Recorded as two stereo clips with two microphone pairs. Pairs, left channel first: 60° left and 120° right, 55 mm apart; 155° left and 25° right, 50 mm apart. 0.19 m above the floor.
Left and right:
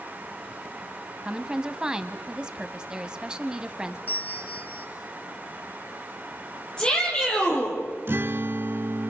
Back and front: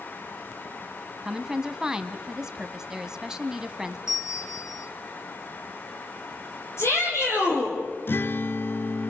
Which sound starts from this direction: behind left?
A shout, at 6.8 s.